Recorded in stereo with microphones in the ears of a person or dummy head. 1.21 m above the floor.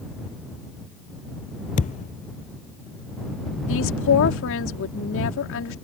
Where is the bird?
No bird in this recording.